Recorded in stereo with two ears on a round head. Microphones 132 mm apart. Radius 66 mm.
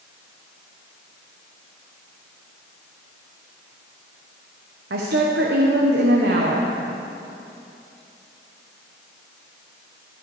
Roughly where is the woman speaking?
Right.